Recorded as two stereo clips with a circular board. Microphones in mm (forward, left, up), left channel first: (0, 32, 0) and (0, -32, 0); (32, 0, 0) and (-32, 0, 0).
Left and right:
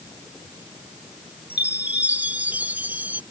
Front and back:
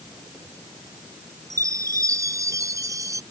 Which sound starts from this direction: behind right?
A chime, at 1.5 s.